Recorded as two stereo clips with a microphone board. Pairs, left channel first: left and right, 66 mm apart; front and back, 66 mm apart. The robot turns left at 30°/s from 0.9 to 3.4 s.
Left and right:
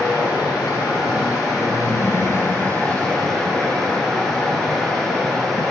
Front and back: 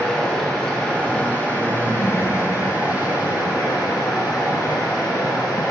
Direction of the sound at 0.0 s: 80° left.